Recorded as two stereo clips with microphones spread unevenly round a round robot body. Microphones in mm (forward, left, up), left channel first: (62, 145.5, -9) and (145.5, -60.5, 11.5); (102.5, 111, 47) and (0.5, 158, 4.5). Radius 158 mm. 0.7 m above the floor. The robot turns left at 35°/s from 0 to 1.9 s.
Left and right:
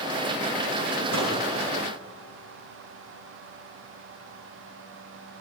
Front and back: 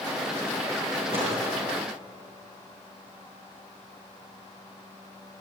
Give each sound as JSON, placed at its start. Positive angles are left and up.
{"t": 1.1, "sound": "a microwave", "azimuth_deg": -75, "distance_m": 4.5}